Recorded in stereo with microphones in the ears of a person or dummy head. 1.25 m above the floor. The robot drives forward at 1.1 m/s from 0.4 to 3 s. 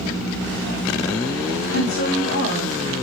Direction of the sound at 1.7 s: 85° left.